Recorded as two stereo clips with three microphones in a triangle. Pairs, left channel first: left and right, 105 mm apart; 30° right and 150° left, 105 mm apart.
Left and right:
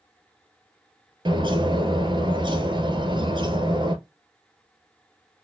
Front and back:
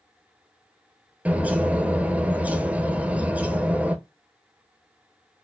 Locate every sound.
1.2 s a bird: 130° right, 0.7 m